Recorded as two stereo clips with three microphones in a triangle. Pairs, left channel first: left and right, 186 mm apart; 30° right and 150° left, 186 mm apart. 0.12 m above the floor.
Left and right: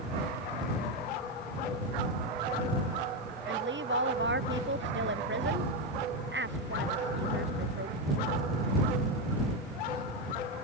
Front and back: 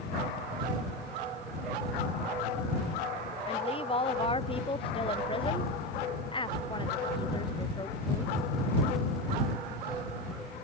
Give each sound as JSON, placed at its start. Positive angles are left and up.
{"t": 3.5, "sound": "a woman speaking", "azimuth_deg": -90}